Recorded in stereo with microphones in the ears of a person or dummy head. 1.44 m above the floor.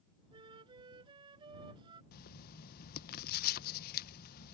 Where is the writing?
50° left (ahead or behind).